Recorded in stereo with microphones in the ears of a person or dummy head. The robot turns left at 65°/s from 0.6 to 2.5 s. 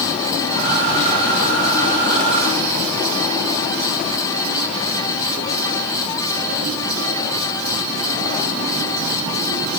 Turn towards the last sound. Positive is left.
No sound to turn to.